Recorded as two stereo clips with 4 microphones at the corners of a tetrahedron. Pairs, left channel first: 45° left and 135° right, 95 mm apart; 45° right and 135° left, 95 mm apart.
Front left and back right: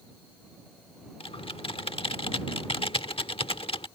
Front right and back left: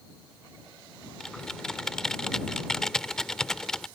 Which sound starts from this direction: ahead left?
Typing on a keyboard, at 1.2 s.